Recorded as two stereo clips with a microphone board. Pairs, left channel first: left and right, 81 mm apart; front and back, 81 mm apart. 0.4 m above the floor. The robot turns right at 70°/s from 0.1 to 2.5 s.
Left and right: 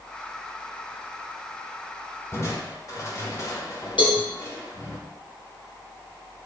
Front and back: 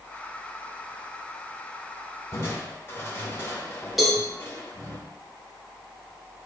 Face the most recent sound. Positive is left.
turn(degrees=90)